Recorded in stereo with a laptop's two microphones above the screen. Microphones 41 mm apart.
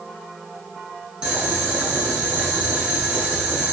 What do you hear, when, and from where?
1.2 s boiling: 25° right (ahead or behind), 10 m